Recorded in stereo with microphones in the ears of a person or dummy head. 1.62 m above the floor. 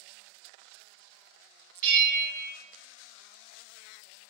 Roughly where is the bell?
Right.